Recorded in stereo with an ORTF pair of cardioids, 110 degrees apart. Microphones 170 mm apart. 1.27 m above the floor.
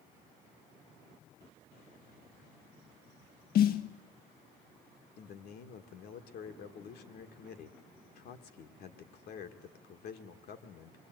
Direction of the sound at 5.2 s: 70° left.